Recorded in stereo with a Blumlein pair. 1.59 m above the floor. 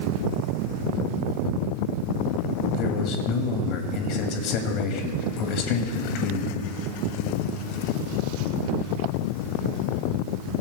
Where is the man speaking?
40° left, 2 m.